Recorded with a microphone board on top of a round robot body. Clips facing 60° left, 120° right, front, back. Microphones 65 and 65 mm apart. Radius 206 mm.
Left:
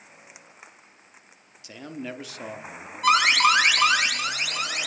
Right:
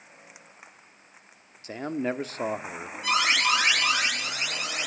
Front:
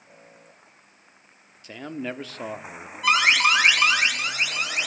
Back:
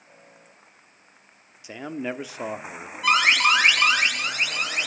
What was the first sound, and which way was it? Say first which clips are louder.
A man speaking: right 7 dB, back 2 dB; 110° right.